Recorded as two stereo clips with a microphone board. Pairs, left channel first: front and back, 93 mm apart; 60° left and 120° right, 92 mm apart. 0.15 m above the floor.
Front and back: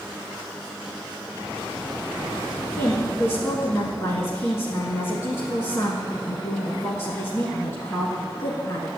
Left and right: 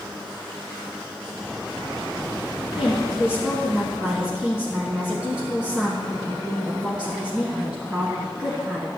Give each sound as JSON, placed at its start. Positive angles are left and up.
{"t": 2.8, "sound": "a woman speaking", "azimuth_deg": -50, "distance_m": 1.4}